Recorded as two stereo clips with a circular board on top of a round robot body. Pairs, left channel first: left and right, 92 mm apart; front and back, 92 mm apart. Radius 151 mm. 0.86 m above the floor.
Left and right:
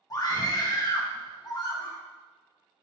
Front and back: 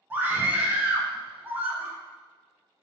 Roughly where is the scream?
Behind left.